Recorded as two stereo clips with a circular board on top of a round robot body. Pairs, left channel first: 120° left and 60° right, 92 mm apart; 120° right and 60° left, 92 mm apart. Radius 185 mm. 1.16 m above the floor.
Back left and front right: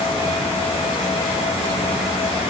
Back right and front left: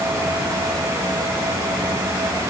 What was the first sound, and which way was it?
Only background noise.